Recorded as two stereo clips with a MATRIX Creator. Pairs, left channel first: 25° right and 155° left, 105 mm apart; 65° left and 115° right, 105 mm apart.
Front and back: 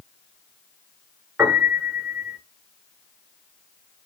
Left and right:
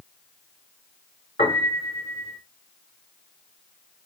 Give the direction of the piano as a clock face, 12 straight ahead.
9 o'clock.